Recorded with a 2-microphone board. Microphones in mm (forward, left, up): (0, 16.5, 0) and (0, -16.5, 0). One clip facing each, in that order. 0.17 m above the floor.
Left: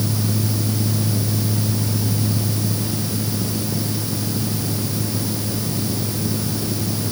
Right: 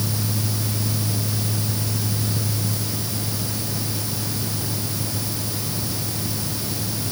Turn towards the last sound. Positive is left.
No sound to turn to.